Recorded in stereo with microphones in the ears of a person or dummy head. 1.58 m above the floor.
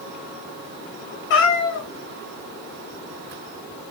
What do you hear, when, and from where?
1.3 s a cat meowing: 55° left (ahead or behind), 1.2 m